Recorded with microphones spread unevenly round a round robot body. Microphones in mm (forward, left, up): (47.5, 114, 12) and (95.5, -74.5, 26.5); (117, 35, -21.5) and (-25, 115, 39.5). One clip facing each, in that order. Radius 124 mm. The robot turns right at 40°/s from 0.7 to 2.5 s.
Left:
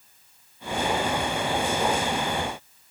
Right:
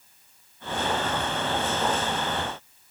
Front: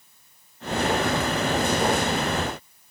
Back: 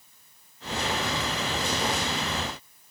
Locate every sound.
Only background noise.